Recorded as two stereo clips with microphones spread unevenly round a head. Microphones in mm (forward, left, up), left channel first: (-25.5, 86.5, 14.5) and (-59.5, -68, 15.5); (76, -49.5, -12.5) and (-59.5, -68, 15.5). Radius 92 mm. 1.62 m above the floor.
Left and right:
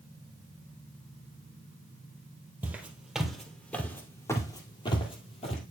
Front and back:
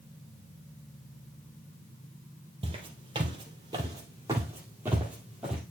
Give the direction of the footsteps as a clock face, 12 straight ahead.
6 o'clock.